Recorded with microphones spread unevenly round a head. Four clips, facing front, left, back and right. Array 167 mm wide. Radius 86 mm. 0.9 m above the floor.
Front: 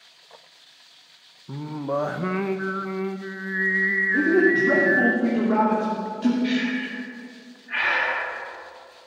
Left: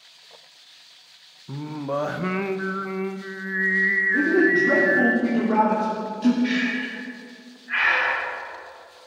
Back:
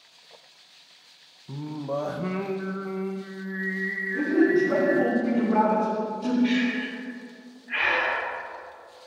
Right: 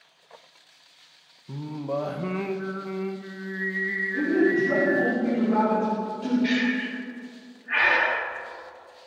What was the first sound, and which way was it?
Singing, 20° left.